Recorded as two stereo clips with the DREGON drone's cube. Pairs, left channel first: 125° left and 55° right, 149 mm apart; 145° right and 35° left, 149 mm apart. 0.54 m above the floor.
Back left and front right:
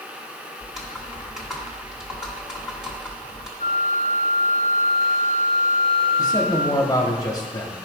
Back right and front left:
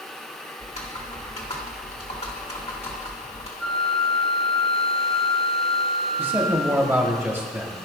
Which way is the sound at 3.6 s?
60° right.